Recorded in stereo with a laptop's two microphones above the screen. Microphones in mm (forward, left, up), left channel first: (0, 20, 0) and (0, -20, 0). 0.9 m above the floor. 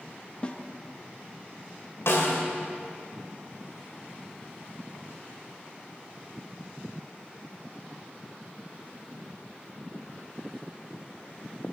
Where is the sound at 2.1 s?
85° left, 2 m.